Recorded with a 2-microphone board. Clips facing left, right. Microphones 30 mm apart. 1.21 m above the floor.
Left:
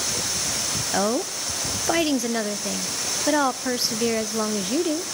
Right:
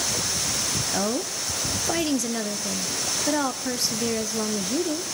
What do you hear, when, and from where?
0.9 s a woman speaking: 30° left (ahead or behind), 0.5 m